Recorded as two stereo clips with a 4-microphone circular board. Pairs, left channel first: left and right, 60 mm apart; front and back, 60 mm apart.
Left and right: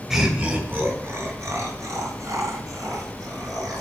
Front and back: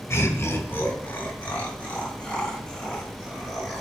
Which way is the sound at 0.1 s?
10° right.